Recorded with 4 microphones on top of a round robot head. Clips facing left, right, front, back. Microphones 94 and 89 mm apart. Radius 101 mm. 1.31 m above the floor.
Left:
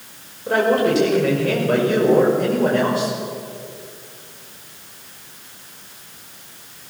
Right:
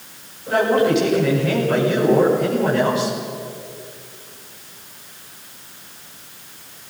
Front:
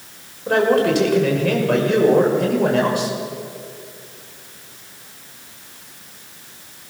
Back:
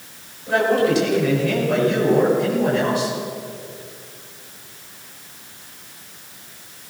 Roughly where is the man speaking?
Ahead left.